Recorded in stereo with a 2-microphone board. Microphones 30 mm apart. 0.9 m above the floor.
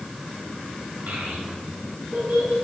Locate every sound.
1.1 s a child speaking: 75° right (ahead or behind), 3 m; by 2.5 s 85° right, 3.5 m